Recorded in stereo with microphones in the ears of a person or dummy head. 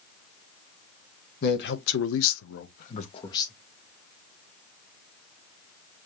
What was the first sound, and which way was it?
A man speaking, 55° left (ahead or behind).